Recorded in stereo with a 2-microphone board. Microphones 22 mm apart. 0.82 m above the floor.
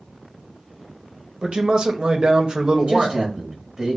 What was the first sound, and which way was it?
A man speaking, 40° right (ahead or behind).